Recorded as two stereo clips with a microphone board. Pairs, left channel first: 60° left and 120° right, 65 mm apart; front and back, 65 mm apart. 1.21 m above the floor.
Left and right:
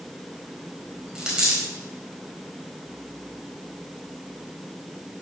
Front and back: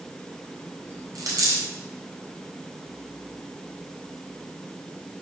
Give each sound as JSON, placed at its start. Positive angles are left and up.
{"t": 1.1, "sound": "a dropped coin", "azimuth_deg": 165, "distance_m": 3.5}